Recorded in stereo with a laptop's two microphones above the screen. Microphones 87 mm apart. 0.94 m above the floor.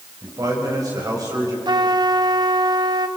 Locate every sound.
0.2 s a man speaking: 45° right (ahead or behind), 5 m
1.6 s a trumpet: 55° right (ahead or behind), 0.7 m